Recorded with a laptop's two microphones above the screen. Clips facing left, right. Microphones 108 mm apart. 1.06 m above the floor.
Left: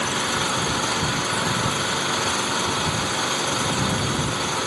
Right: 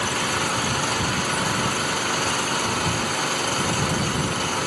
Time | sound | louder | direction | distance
0.0 | an engine running | even | 5° left (ahead or behind) | ?